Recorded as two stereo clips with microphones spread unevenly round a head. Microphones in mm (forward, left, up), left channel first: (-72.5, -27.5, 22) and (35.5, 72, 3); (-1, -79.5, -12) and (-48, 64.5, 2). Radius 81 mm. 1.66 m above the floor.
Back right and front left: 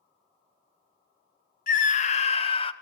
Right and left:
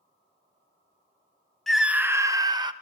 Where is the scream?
160° right, 1.0 m; by 2.7 s 170° left, 2.0 m.